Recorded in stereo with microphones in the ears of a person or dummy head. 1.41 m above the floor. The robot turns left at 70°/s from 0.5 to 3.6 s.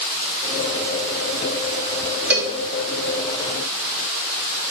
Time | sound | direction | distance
2.3 | a cowbell | 10° right (ahead or behind) | 2 m